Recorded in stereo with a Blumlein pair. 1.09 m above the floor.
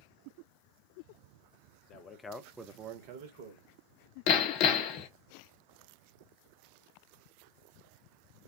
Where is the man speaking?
40° left, 0.7 m; by 3.7 s 65° right, 1.1 m.